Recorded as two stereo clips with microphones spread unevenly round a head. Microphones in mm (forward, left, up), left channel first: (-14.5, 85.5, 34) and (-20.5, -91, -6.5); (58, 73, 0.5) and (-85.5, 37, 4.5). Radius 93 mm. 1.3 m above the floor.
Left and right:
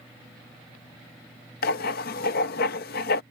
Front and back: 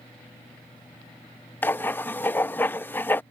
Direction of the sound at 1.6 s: 90° left.